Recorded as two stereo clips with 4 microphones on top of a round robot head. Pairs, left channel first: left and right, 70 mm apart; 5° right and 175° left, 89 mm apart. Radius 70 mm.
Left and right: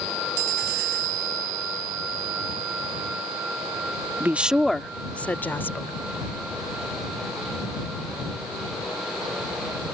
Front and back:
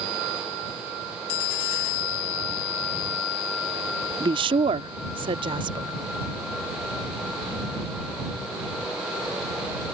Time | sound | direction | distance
4.2 | a woman speaking | 150° right | ?